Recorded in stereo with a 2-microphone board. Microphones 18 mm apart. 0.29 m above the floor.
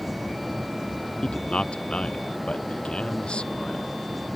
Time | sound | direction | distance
1.2 | a man speaking | 70° left (ahead or behind) | ?